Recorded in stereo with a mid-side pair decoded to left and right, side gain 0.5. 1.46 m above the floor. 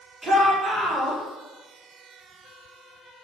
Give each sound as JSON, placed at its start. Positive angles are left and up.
{"t": 0.2, "sound": "a shout", "azimuth_deg": -20, "distance_m": 1.5}